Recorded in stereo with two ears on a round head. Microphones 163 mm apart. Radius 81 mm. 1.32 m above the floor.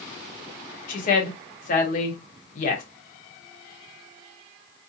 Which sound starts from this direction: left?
A woman speaking, at 0.9 s.